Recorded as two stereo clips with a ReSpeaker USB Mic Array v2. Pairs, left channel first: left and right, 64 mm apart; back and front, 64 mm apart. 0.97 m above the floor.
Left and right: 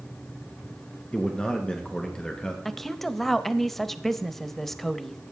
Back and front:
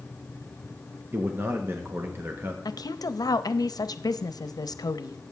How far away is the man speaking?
About 1.0 m.